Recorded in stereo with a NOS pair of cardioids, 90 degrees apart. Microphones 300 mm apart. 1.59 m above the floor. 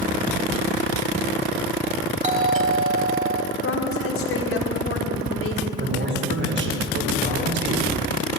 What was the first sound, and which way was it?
A doorbell, 25° right.